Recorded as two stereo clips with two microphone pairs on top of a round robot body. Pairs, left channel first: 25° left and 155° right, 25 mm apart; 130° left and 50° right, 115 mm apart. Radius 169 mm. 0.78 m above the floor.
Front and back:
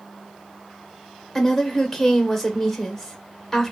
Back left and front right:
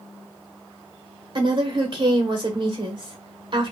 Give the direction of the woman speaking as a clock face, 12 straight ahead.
2 o'clock.